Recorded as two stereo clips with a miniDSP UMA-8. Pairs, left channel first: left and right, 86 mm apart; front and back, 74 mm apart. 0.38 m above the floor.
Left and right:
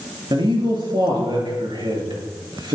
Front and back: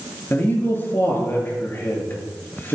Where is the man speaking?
60° right, 5.5 m.